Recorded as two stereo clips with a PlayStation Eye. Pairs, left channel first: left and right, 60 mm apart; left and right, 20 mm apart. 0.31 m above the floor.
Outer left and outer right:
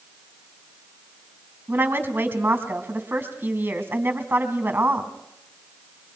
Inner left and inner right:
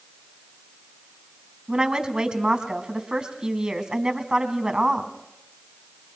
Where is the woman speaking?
40° right (ahead or behind), 2.5 m.